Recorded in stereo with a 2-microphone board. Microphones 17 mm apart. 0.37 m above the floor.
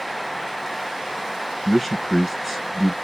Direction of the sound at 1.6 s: 5° right (ahead or behind).